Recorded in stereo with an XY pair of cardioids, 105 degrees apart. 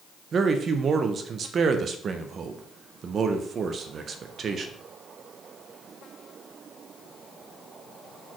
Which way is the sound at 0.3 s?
50° right.